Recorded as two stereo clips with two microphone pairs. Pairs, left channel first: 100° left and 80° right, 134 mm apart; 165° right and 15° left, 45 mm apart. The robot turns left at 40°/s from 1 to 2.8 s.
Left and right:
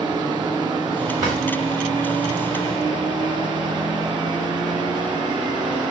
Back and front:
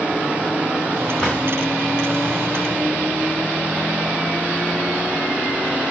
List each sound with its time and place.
1.2 s a drawer: 95° right, 1.6 m; by 1.4 s 100° right, 1.6 m